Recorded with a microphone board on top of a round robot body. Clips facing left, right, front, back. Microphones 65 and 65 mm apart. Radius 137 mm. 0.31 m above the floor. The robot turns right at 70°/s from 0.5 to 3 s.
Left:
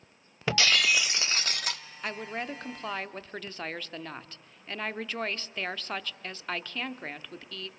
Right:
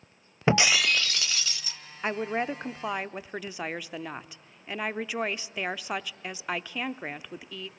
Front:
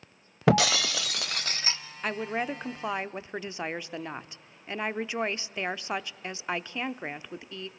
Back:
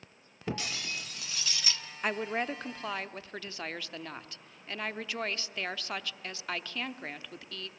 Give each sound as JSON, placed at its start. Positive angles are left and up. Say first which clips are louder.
{"t": 0.5, "sound": "breaking glass", "louder": "right 2 dB, front 13 dB", "azimuth_deg": -25, "distance_m": 0.6}
{"t": 2.0, "sound": "a woman speaking", "louder": "right 6 dB, front 1 dB", "azimuth_deg": -100, "distance_m": 0.9}